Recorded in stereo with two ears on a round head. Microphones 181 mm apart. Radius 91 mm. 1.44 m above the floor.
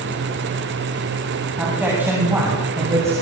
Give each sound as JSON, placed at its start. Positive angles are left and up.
{"t": 1.6, "sound": "a man speaking", "side_deg": -10, "distance_m": 8.5}